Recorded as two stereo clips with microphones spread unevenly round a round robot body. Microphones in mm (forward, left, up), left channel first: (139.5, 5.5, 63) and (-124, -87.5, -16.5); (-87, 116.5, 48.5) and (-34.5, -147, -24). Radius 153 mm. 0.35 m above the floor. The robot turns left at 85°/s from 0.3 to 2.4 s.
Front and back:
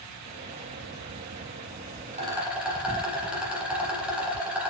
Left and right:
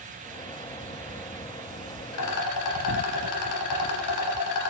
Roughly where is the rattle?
Behind left.